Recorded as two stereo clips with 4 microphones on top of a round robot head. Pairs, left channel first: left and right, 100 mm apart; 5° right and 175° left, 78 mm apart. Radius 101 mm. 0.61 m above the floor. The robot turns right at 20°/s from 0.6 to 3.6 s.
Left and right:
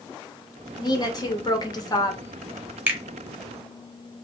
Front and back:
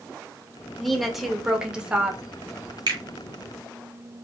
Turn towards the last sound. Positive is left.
turn(degrees=-145)